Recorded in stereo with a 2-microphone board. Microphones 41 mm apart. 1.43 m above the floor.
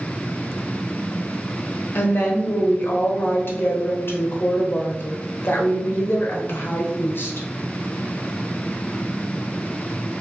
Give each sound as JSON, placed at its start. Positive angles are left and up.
{"t": 1.9, "sound": "a woman speaking", "side_deg": 55, "distance_m": 0.8}